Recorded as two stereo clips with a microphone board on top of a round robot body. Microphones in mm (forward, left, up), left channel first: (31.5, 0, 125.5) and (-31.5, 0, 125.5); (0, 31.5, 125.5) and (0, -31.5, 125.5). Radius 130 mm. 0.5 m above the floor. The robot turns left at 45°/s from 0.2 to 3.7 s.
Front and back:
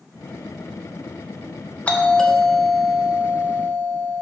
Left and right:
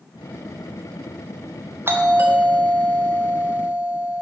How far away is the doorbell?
About 1.7 m.